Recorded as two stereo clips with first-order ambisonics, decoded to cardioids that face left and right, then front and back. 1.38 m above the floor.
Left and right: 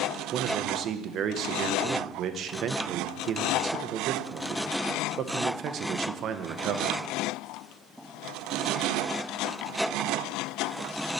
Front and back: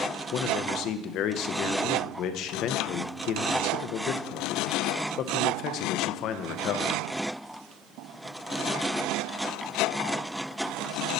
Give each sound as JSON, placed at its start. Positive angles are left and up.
{"t": 0.3, "sound": "a man speaking", "azimuth_deg": -40, "distance_m": 0.6}